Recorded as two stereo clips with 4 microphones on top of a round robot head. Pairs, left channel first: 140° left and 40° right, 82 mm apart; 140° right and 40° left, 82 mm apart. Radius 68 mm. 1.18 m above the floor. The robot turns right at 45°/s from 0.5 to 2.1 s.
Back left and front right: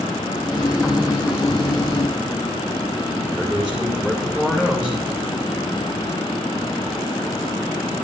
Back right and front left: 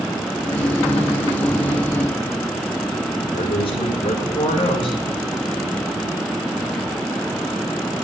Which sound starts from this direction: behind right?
A man speaking, at 3.3 s.